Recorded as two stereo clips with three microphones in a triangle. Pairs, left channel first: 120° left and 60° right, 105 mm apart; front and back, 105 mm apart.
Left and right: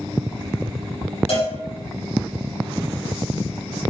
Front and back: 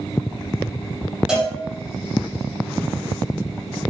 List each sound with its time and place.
1.3 s a cowbell: 95° left, 7 m